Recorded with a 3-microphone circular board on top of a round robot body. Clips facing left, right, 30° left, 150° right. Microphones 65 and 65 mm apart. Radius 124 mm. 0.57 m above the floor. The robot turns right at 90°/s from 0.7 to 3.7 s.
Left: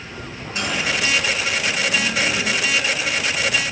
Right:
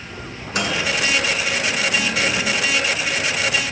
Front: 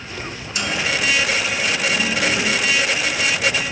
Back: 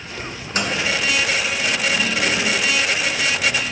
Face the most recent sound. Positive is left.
turn(degrees=165)